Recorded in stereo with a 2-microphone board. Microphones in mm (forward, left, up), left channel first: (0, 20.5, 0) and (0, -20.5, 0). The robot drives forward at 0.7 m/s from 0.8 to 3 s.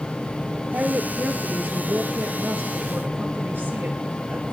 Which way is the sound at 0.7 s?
75° right (ahead or behind).